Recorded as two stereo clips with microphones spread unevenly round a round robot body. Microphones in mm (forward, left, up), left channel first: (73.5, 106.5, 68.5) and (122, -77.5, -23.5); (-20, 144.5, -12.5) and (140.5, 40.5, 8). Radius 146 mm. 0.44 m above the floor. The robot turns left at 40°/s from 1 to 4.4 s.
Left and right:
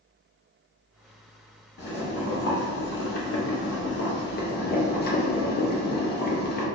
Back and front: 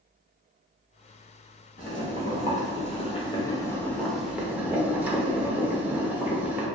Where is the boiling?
160° left, 0.6 m; by 6.7 s 55° left, 0.6 m.